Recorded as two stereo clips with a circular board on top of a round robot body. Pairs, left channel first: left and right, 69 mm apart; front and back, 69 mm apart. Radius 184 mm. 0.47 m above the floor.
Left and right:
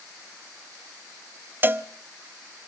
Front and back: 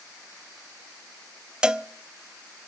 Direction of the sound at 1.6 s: 110° right.